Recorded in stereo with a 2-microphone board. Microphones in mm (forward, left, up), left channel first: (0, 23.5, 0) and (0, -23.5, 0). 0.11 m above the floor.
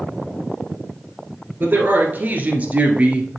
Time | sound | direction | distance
1.6 | a man speaking | 45° right (ahead or behind) | 1.5 m